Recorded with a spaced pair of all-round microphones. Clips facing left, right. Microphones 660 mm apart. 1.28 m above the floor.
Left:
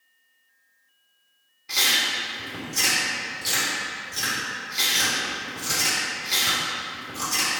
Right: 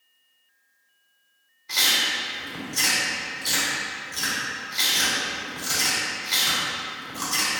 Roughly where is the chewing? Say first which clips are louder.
Even; left.